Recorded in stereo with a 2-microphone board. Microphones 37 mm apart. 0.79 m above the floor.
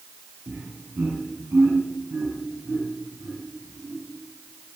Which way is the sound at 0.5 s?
60° right (ahead or behind).